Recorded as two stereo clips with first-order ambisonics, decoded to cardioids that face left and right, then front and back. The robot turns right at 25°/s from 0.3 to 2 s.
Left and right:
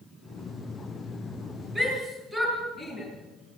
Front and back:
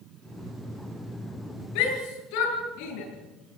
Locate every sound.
1.8 s a shout: 5° right, 9 m; by 3.0 s straight ahead, 9 m